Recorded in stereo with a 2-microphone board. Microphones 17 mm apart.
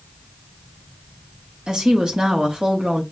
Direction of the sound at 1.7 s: 45° right (ahead or behind).